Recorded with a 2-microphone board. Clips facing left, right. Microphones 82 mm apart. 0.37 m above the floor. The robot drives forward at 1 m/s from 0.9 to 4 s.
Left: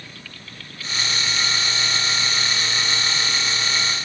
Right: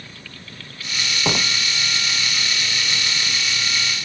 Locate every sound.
1.2 s a door slam: 85° right